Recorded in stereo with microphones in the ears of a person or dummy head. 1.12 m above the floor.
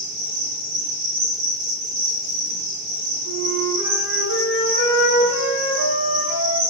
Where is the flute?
50° right (ahead or behind), 1.4 m.